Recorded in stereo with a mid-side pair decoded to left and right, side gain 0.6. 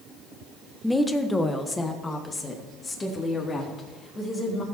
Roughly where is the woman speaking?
Ahead.